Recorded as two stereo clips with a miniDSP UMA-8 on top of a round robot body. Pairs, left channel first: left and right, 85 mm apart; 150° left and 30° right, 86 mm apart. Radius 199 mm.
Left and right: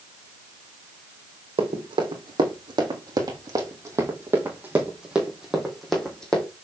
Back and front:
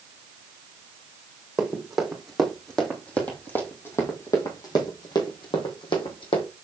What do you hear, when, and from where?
1.6 s running footsteps: 115° right, 2.5 m; by 6.5 s 170° left, 2.5 m